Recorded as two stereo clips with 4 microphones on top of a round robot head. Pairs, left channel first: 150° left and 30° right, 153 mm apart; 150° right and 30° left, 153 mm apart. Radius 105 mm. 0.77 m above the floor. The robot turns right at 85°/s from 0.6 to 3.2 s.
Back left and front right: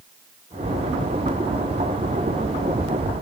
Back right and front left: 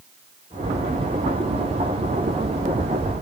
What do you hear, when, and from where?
Only background noise.